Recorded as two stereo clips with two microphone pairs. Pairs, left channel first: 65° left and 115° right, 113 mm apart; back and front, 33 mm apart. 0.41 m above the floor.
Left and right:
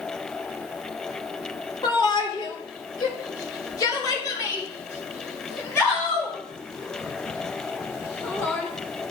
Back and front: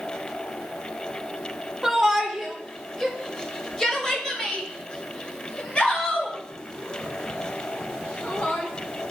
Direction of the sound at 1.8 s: 75° left.